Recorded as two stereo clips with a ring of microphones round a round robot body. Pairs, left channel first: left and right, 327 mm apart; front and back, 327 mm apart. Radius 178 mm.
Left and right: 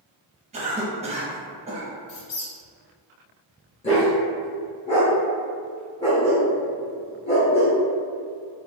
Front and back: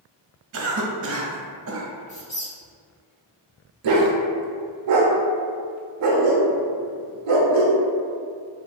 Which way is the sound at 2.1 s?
70° left.